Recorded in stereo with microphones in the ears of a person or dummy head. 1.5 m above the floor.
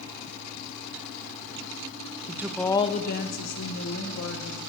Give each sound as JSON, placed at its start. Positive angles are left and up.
{"t": 2.3, "sound": "a woman speaking", "side_deg": -20, "distance_m": 0.6}